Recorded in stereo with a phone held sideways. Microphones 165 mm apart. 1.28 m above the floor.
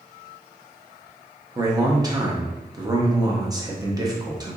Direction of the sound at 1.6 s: 25° right (ahead or behind).